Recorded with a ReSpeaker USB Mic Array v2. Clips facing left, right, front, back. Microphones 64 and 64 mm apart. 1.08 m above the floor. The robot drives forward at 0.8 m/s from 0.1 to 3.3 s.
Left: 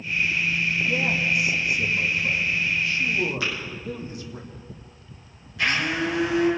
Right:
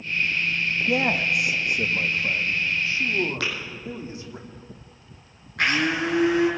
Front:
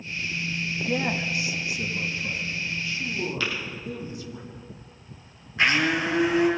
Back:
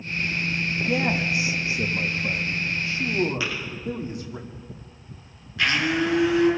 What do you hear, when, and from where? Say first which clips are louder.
0.9 s a man speaking: right 4 dB, back 3 dB; 95° right, 1.1 m; by 4.4 s 150° right, 2.5 m
3.4 s tapping: even, even; 105° right, 6 m
5.6 s a blender: right 2 dB, even; 60° right, 5 m